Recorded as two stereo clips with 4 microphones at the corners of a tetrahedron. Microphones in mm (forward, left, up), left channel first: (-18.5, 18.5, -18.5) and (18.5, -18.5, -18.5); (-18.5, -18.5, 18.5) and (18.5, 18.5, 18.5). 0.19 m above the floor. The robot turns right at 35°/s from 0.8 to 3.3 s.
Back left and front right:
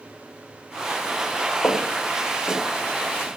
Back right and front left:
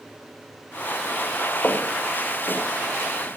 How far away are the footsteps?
About 2.5 m.